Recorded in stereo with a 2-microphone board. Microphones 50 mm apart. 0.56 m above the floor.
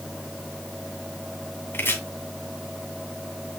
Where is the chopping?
45° left (ahead or behind), 2.5 m.